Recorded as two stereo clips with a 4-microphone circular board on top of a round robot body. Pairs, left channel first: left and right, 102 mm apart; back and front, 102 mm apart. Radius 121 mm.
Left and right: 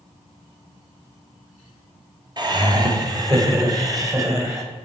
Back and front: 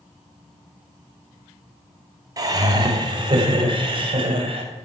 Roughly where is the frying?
I don't hear frying.